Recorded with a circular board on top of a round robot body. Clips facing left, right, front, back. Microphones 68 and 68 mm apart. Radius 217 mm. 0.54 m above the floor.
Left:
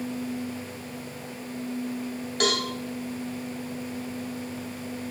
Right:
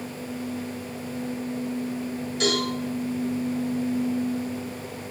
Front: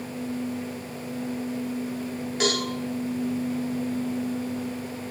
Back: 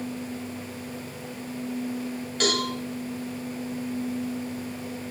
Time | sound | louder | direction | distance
2.4 | a cowbell | right 1 dB, even | 75° left | 1.7 m